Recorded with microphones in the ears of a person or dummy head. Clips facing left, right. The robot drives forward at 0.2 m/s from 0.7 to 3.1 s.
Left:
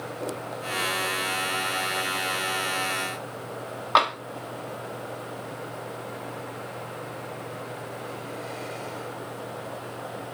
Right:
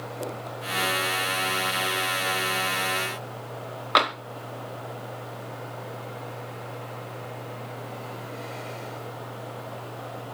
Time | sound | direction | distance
4.0 | tapping | 25° right (ahead or behind) | 0.9 m